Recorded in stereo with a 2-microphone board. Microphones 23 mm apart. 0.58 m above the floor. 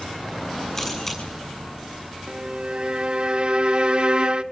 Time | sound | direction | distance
0.8 | a camera shutter | 15° left (ahead or behind) | 7 m
2.3 | a violin | 40° right (ahead or behind) | 0.7 m